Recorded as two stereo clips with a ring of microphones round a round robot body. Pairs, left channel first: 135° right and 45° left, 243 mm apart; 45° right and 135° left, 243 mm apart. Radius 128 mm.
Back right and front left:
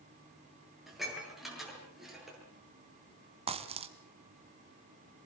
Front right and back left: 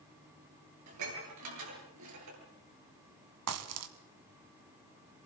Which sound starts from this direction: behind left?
Dishes clattering, at 0.9 s.